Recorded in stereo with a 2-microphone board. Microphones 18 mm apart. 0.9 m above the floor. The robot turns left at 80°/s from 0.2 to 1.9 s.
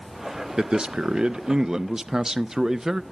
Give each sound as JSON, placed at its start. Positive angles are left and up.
{"t": 0.6, "sound": "a man speaking", "azimuth_deg": -45, "distance_m": 0.6}